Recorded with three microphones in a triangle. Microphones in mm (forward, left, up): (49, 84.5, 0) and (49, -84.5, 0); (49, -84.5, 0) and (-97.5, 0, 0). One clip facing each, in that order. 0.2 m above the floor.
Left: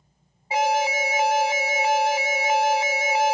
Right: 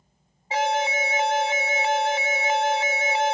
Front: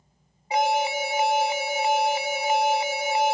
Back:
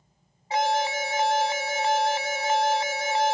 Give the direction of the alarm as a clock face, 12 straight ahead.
11 o'clock.